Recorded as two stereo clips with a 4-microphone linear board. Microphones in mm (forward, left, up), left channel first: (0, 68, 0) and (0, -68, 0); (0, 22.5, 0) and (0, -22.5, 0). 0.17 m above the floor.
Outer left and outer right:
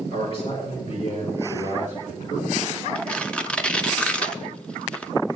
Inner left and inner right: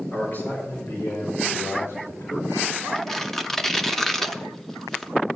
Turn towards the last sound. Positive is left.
turn(degrees=5)  # may be behind; listen again after turning